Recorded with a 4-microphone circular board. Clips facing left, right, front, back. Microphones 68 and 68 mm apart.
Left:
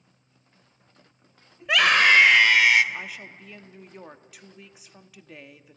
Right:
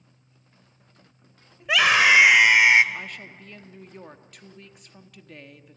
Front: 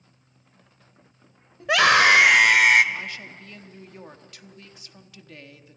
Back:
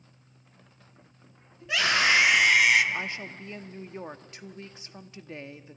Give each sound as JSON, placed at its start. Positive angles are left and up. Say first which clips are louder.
{"t": 1.6, "sound": "a scream", "louder": "even, front 8 dB", "azimuth_deg": 0, "distance_m": 2.0}
{"t": 2.9, "sound": "a woman speaking", "louder": "even, back 1 dB", "azimuth_deg": 165, "distance_m": 0.8}